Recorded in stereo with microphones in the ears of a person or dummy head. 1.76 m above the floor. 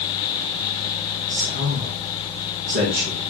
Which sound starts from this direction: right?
A man speaking, at 1.3 s.